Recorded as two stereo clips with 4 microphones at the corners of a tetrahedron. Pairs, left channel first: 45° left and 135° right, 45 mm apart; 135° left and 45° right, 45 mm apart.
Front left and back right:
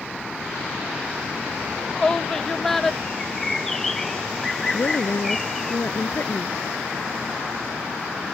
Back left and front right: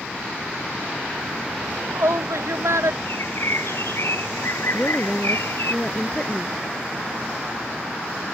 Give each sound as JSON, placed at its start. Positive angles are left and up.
{"t": 1.6, "sound": "a shout", "azimuth_deg": -25}
{"t": 3.0, "sound": "a bird", "azimuth_deg": 130}
{"t": 4.7, "sound": "a woman speaking", "azimuth_deg": 70}